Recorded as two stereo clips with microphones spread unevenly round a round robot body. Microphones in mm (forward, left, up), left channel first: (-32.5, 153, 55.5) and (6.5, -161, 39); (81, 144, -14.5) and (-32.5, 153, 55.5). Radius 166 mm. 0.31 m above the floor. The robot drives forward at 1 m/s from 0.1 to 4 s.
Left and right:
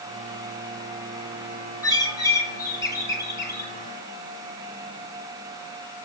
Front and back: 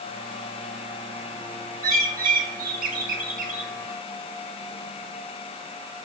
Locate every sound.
1.8 s a bird: 175° left, 2.5 m; by 3.7 s straight behind, 4 m